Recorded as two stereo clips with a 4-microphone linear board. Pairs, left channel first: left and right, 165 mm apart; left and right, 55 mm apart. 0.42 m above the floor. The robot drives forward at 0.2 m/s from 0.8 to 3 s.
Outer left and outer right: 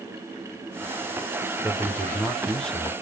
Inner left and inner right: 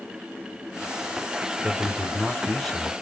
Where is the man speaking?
5° left (ahead or behind), 1.0 m.